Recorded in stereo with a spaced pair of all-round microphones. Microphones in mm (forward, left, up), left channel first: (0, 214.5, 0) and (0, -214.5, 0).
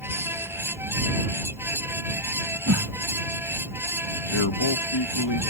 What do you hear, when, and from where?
0.0 s a fan: 5° right (ahead or behind)
2.7 s a whoosh: 40° right (ahead or behind)
4.3 s a man speaking: 80° left